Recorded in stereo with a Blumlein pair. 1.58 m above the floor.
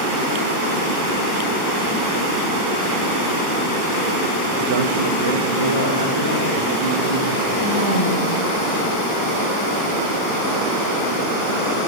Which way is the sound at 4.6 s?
40° right.